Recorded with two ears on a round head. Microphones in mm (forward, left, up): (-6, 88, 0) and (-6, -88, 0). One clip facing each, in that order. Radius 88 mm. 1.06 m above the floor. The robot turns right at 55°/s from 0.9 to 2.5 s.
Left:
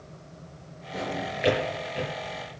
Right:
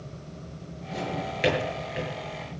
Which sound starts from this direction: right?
A drawer, at 0.9 s.